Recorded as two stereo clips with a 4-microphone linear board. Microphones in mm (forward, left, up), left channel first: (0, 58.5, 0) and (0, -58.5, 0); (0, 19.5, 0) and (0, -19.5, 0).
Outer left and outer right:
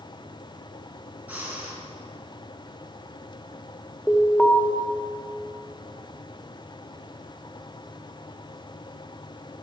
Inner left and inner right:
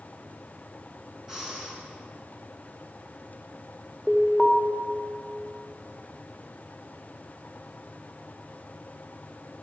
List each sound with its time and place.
1.3 s breathing: 15° right (ahead or behind), 3.5 m
4.1 s an alarm: 5° right (ahead or behind), 1.5 m